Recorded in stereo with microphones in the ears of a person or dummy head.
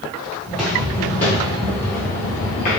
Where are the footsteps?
5° left (ahead or behind), 1.2 m; by 2.8 s 40° left (ahead or behind), 1.5 m.